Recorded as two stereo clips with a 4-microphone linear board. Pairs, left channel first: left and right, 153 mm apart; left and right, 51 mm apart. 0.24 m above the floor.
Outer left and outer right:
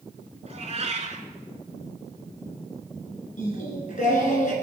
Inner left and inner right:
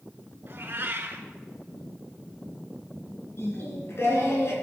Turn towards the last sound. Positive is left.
turn(degrees=55)  # may be behind; listen again after turning